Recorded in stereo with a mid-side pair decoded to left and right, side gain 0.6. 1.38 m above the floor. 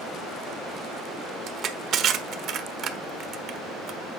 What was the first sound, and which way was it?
Crushing, 50° right.